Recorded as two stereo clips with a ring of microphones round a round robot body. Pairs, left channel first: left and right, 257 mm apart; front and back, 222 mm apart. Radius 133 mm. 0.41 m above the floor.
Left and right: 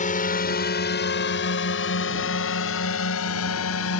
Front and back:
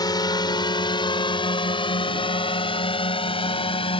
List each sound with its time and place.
0.0 s a drone: 60° left; by 4.0 s 65° left